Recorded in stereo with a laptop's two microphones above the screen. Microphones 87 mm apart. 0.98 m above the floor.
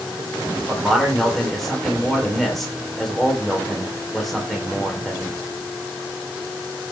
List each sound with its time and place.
0.7 s a man speaking: centre (ahead or behind), 3 m